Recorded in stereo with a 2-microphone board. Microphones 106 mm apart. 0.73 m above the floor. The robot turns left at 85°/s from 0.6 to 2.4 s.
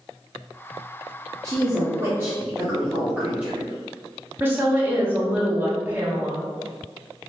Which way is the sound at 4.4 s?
20° right (ahead or behind).